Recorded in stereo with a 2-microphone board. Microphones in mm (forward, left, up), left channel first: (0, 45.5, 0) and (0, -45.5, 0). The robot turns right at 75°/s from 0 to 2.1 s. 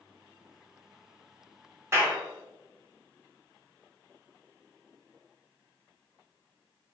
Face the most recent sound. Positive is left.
turn(degrees=-25)  # may be behind; listen again after turning